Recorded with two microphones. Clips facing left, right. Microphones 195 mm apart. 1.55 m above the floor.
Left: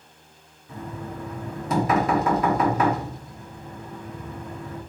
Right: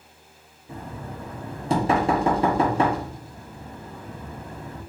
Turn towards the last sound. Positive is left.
turn(degrees=-30)  # may be behind; listen again after turning